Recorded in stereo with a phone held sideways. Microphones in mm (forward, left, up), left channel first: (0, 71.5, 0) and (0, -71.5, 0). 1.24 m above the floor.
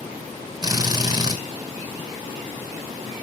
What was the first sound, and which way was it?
A drill, 30° right (ahead or behind).